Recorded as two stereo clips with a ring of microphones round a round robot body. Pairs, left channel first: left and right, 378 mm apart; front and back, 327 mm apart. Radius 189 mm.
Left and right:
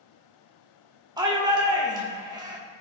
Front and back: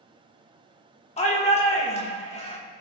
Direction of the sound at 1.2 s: 30° right.